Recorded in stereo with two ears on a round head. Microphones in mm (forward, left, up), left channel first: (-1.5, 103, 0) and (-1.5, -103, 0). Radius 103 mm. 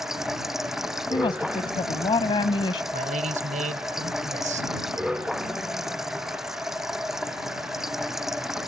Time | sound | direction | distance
0.0 | running water | centre (ahead or behind) | ?
1.1 | a woman speaking | 20° left (ahead or behind) | ?
2.9 | a man speaking | 35° right (ahead or behind) | ?